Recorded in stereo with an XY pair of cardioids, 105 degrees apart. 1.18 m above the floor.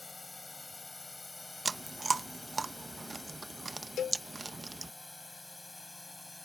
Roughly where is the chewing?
Ahead.